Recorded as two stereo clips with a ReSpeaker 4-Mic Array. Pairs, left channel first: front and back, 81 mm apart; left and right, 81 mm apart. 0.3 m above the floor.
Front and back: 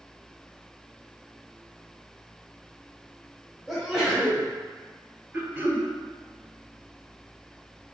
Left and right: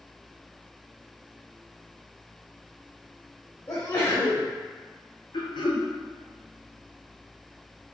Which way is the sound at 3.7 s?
90° left.